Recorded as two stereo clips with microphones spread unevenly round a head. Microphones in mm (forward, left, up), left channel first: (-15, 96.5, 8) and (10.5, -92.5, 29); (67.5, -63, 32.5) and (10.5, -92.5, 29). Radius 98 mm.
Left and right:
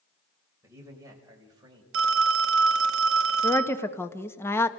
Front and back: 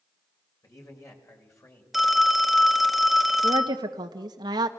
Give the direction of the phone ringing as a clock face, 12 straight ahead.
2 o'clock.